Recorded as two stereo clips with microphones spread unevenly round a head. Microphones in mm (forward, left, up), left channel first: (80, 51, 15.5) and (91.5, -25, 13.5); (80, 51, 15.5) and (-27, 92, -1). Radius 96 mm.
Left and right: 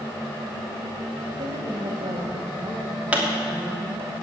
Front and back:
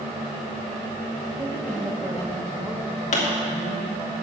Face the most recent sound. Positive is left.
turn(degrees=-10)